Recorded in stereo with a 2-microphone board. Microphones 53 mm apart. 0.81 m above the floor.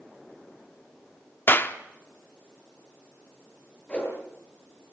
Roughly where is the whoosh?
Left.